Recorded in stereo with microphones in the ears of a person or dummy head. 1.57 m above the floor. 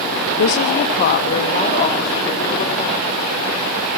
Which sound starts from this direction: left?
A woman speaking, at 0.4 s.